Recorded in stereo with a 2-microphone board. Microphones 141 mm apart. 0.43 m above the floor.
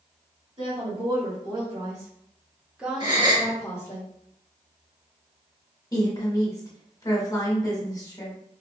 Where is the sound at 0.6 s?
40° right (ahead or behind), 2.0 m; by 4.0 s 20° left (ahead or behind), 1.3 m.